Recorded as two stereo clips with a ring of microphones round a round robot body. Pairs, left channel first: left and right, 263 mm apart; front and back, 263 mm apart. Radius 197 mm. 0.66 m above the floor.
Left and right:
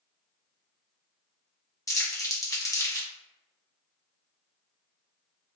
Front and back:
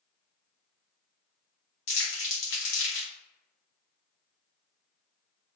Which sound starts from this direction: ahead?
Crumpling, at 1.9 s.